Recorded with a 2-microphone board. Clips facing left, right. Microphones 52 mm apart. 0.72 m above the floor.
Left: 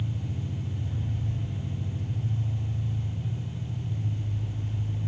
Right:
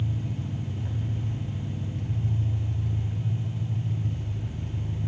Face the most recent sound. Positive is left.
turn(degrees=-60)  # may be behind; listen again after turning